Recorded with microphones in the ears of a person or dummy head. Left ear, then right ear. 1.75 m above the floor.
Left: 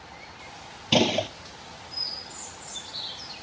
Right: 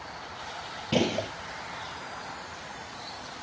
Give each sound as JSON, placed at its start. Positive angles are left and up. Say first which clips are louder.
{"t": 0.9, "sound": "a gunshot", "louder": "left 5 dB", "side_deg": 40, "distance_m": 0.9}